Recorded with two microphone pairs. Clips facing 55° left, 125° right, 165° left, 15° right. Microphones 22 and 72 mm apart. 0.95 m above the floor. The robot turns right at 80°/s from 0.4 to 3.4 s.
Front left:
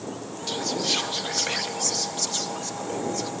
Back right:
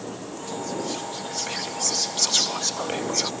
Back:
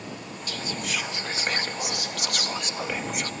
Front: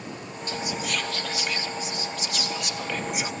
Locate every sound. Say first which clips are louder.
0.5 s whispering: front left 5 dB, front 2 dB; 45° left; by 3.3 s 90° right